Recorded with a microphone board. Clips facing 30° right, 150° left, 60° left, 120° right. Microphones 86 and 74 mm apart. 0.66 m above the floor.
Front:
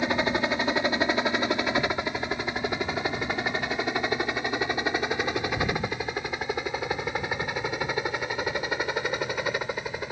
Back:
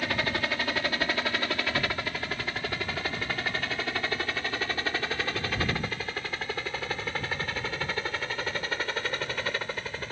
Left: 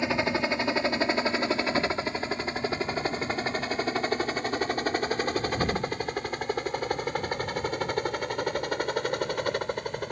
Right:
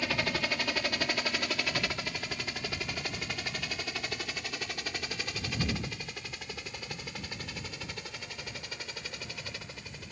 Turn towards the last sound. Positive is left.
turn(degrees=45)